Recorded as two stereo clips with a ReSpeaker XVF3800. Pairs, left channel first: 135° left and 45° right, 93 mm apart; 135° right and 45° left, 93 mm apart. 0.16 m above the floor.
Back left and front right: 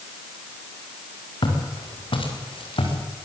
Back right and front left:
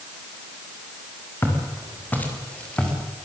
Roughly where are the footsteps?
Behind.